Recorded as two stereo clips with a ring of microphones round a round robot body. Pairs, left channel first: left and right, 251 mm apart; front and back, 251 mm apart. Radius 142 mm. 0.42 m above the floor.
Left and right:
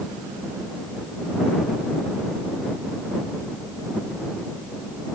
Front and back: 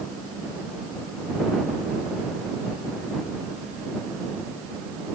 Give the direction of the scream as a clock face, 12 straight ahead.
No scream in this recording.